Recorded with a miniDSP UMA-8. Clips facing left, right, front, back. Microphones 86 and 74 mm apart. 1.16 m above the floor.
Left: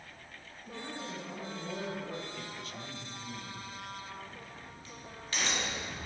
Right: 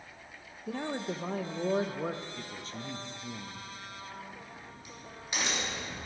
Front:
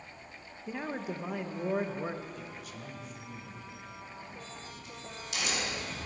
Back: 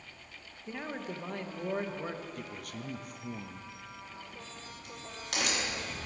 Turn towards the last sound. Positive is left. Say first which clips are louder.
# right 1 dB, front 1 dB
turn(degrees=-160)